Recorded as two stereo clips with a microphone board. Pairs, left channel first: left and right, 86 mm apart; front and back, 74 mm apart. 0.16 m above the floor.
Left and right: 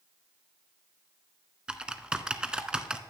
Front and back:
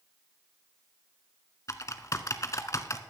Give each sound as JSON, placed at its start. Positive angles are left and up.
{"t": 1.7, "sound": "typing on a keyboard", "azimuth_deg": -15, "distance_m": 0.8}